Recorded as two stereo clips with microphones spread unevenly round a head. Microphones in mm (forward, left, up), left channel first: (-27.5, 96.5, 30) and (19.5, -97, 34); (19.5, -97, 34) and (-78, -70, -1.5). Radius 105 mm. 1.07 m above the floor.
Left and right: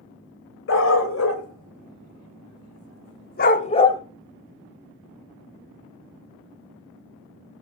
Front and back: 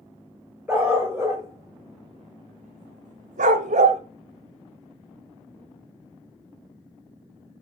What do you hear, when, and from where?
0.7 s a dog barking: 75° left, 2.5 m; by 4.0 s 175° left, 1.2 m